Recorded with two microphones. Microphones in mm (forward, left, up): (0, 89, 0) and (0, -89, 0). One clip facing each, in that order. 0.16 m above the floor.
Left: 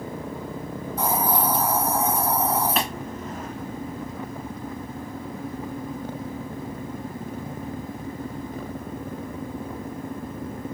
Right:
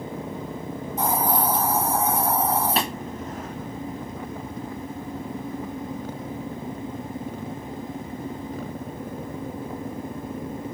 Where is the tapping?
35° right (ahead or behind), 1.6 m.